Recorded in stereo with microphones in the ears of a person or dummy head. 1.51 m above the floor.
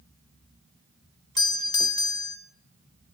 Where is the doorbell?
25° left (ahead or behind), 0.8 m.